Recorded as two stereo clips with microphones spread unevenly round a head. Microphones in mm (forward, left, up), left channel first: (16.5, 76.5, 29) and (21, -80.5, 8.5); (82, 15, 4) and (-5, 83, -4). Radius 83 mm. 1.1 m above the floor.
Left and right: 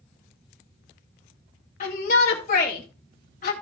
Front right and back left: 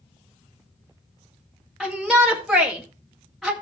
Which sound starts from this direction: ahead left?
A shout, at 1.8 s.